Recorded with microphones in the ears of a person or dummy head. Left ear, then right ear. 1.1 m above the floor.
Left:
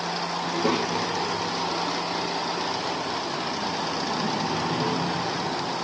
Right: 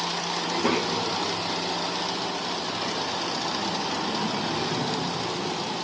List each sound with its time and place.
0.4 s a child speaking: 20° right (ahead or behind), 1.2 m; by 5.8 s 55° right (ahead or behind), 6.5 m